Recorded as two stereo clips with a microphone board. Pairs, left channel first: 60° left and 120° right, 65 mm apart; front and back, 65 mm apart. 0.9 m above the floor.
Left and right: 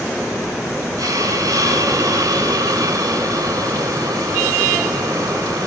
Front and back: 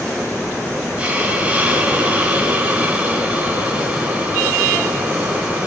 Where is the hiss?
110° right, 3.5 m.